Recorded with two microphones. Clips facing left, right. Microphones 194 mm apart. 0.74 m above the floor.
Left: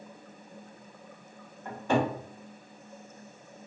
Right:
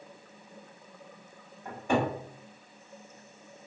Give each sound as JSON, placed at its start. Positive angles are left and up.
{"t": 1.6, "sound": "a cupboard door", "side_deg": -15, "distance_m": 1.4}